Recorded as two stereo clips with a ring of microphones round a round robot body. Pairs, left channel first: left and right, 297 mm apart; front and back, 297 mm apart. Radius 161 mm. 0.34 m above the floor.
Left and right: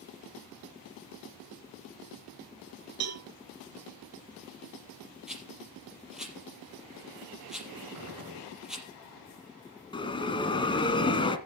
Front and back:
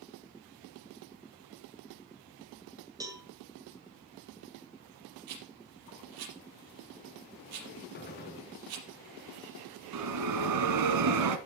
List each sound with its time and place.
3.0 s a cowbell: 105° right, 1.7 m
5.3 s a rattle: straight behind, 5 m
7.9 s a gunshot: 60° right, 3.5 m
9.9 s a bell: 165° left, 1.6 m